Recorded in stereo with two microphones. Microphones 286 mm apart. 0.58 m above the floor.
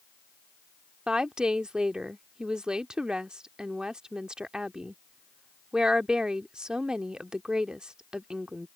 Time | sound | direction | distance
1.1 | a woman speaking | 5° right (ahead or behind) | ?